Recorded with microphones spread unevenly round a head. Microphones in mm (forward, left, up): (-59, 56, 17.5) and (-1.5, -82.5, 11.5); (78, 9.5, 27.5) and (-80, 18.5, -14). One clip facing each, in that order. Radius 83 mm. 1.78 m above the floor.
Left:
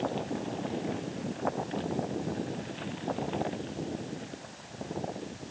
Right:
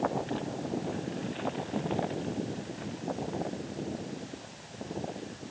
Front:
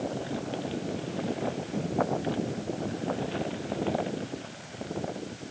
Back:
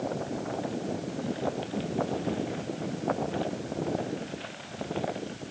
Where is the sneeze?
No sneeze in this recording.